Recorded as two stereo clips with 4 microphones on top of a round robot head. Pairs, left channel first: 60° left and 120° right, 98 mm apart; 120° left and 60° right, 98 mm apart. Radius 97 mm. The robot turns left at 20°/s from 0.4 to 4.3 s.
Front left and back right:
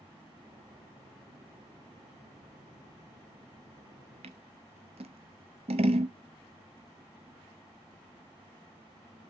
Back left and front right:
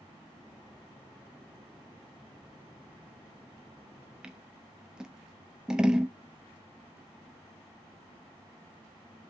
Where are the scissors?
140° right, 0.5 m.